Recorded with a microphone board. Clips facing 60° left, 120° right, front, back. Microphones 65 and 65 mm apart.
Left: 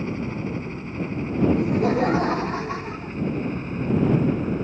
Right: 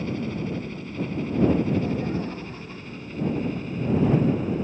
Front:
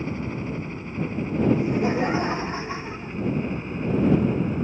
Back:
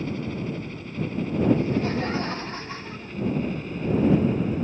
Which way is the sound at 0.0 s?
35° left.